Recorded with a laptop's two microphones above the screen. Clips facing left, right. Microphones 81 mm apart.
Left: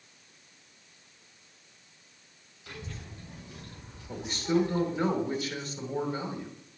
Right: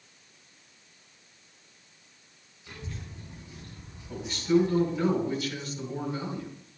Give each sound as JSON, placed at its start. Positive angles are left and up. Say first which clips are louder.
{"t": 2.7, "sound": "a child speaking", "louder": "right 1 dB", "side_deg": 90, "distance_m": 3.0}
{"t": 4.1, "sound": "a man speaking", "louder": "right 4 dB", "side_deg": 30, "distance_m": 2.5}